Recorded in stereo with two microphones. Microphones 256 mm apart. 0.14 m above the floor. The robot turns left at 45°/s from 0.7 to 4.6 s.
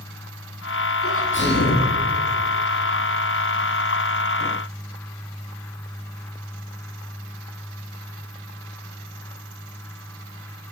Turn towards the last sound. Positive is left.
turn(degrees=-95)